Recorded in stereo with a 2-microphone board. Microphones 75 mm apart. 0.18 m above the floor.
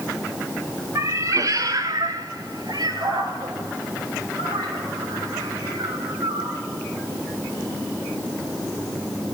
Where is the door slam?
I don't hear a door slam.